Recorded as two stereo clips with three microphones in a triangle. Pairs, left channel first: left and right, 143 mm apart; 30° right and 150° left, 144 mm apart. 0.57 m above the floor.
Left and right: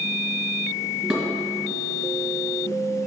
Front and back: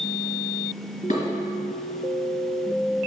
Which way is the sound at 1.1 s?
Straight ahead.